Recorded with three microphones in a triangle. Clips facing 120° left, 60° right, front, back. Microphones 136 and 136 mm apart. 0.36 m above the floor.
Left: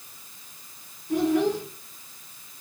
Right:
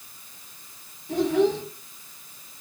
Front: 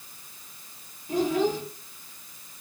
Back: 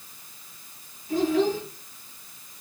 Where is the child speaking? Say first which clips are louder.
Right 1 dB, back 2 dB; 45° right, 4.5 m.